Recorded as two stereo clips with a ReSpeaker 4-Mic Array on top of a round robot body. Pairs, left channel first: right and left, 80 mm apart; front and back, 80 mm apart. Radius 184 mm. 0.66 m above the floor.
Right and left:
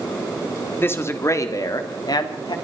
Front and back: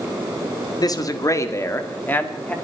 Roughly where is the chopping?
I don't hear chopping.